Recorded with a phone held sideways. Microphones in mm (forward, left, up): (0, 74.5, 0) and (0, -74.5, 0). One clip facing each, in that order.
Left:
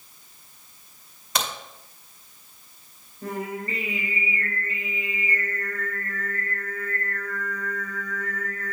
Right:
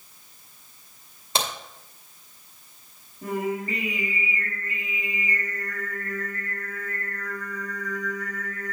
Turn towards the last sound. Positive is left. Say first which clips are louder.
# right 3 dB
turn(degrees=-15)  # may be behind; listen again after turning